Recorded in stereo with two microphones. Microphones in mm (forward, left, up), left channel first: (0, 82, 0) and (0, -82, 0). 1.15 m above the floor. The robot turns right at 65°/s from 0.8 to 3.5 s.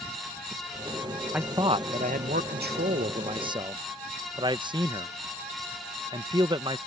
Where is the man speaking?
170° right; by 6.8 s 30° right.